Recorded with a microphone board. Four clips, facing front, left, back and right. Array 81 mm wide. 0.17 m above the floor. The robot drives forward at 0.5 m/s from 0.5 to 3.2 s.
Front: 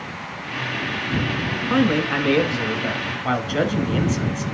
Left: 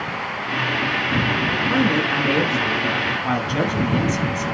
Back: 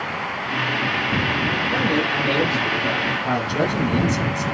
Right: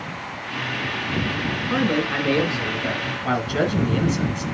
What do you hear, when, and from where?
1.7 s a man speaking: 10° left, 1.4 m; by 4.5 s 25° left, 1.0 m